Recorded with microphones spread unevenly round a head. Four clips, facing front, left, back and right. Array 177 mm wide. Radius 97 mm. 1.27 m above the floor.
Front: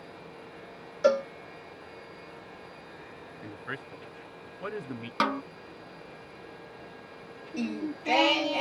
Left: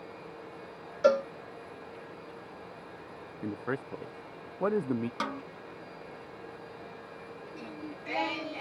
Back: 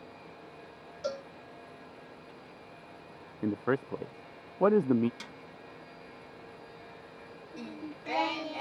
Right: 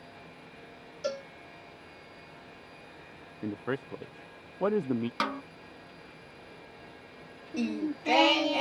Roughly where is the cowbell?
Ahead left.